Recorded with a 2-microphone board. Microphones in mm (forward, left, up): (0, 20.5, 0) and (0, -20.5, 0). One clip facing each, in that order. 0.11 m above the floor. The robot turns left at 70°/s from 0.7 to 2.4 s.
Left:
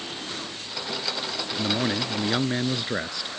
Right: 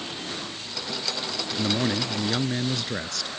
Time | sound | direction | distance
1.6 | a man speaking | centre (ahead or behind) | ?